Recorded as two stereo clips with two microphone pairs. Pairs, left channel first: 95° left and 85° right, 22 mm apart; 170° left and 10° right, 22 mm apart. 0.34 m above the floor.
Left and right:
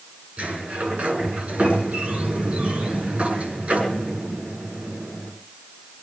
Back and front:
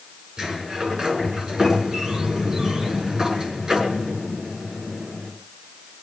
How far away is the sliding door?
About 6.5 m.